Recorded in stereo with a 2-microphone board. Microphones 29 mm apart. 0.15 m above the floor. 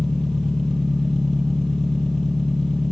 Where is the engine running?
20° left (ahead or behind), 1.4 m.